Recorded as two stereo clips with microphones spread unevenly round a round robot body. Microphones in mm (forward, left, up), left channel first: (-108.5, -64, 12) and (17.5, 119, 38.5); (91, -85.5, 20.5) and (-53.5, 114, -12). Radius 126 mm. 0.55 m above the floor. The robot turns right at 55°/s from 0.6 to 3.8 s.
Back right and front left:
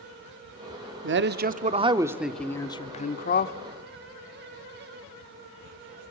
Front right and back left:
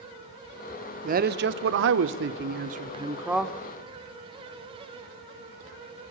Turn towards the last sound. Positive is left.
turn(degrees=-130)